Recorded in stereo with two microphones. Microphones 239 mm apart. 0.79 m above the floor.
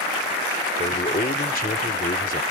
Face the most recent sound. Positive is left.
turn(degrees=35)  # may be behind; listen again after turning